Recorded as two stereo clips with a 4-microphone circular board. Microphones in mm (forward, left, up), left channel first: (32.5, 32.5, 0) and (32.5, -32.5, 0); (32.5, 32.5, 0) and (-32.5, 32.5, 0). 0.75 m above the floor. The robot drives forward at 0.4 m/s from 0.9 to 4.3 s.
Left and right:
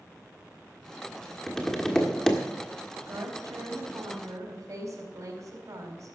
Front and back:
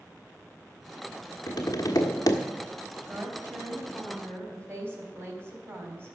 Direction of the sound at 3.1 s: 120° right.